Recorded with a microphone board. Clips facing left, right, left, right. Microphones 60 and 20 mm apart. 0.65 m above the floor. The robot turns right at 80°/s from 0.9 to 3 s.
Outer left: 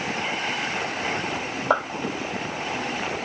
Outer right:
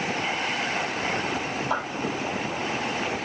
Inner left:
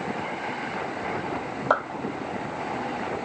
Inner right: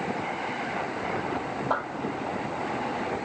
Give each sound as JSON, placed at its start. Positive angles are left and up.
{"t": 1.7, "sound": "a clap", "side_deg": 60, "distance_m": 2.0}